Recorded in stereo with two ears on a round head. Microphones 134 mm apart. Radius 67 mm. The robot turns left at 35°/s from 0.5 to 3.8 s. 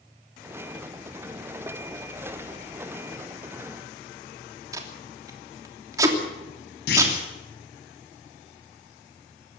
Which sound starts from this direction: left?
A clunk, at 6.9 s.